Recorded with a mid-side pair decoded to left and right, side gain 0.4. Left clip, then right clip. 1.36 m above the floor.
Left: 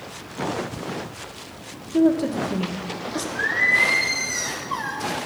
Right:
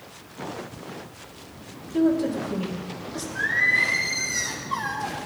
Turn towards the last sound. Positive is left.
turn(degrees=20)